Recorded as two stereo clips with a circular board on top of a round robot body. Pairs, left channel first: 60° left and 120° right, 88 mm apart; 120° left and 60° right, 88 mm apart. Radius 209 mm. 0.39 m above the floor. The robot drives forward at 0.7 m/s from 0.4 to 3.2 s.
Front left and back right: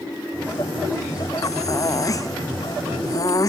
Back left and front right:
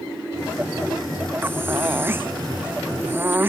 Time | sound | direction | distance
1.4 | breathing | 5° left | ?